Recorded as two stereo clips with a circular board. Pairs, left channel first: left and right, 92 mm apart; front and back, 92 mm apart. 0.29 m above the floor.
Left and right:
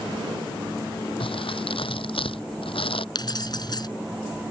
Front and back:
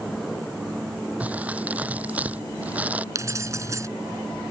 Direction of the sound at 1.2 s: 105° left.